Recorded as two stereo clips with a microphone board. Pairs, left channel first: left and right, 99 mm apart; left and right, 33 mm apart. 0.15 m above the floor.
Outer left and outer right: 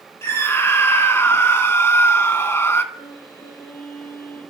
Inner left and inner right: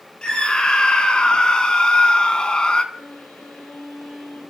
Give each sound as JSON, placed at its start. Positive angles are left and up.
{"t": 0.2, "sound": "a scream", "side_deg": 25, "distance_m": 1.8}
{"t": 2.9, "sound": "a violin", "side_deg": 50, "distance_m": 8.5}